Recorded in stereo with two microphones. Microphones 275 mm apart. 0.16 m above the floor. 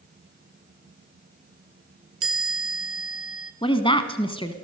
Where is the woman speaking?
20° left (ahead or behind), 1.2 m.